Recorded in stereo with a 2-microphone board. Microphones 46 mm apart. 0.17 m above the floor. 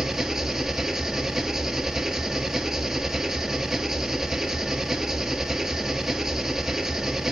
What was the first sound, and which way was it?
An engine running, 15° right (ahead or behind).